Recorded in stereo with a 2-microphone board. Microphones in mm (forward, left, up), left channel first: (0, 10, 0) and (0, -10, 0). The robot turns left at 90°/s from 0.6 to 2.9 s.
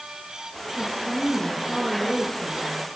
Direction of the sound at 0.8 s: 105° left.